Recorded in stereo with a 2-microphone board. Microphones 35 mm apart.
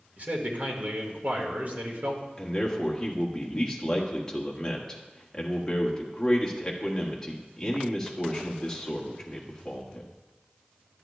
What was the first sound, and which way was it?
A man speaking, 50° right (ahead or behind).